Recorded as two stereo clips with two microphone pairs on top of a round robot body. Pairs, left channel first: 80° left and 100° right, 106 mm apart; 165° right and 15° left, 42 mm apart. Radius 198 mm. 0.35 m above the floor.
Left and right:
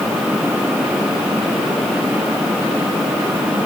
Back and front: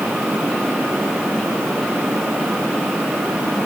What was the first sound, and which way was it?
Only background noise.